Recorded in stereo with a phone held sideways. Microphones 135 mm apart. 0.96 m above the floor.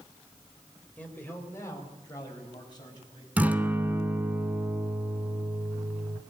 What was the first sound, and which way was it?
A man speaking, 10° left (ahead or behind).